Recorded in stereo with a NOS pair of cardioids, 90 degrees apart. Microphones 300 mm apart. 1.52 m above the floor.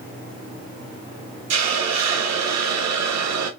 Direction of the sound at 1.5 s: 65° right.